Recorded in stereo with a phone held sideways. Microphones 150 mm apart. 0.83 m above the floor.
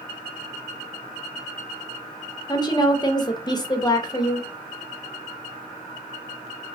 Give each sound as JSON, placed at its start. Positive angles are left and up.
{"t": 2.5, "sound": "a woman speaking", "side_deg": 25, "distance_m": 0.6}